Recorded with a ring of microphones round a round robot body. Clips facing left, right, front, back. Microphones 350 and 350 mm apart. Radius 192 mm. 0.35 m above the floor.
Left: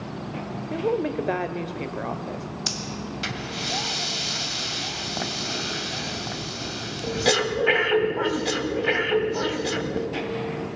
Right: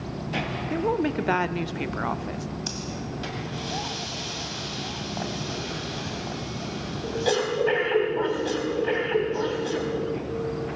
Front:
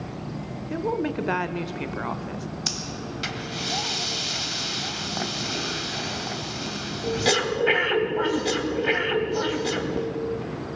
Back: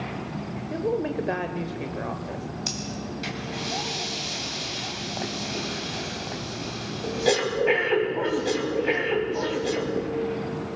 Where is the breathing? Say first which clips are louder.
Even, back 1 dB; 55° left, 2.5 m.